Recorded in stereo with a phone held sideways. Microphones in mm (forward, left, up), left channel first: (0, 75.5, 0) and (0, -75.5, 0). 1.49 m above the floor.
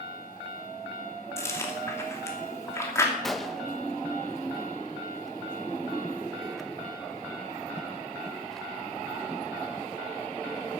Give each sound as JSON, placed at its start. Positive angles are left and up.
{"t": 1.4, "sound": "chewing", "side_deg": 20, "distance_m": 2.5}
{"t": 3.2, "sound": "a gunshot", "side_deg": 0, "distance_m": 1.0}